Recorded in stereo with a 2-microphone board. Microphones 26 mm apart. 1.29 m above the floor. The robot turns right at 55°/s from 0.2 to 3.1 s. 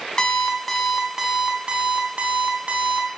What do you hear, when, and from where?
0.2 s an alarm clock: 145° left, 0.9 m; by 3.1 s 55° right, 0.9 m